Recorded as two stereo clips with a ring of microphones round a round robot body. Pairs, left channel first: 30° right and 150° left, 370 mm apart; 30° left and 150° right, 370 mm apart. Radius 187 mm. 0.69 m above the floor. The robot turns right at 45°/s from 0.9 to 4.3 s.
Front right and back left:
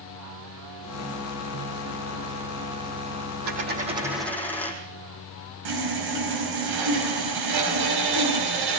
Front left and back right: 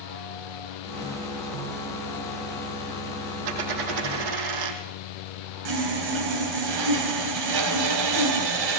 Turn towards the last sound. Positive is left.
turn(degrees=-175)